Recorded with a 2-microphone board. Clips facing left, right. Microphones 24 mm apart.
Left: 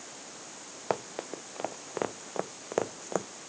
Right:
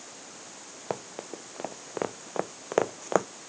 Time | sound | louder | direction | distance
0.9 | running footsteps | left 3 dB | 20° left (ahead or behind) | ?